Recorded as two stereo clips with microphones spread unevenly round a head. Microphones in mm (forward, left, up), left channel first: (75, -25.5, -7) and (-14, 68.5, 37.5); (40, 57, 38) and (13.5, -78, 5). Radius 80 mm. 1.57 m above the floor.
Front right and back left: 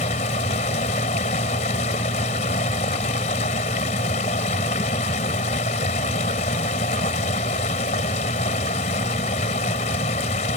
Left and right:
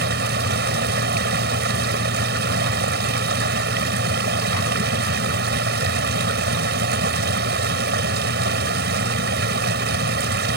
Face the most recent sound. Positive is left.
turn(degrees=-100)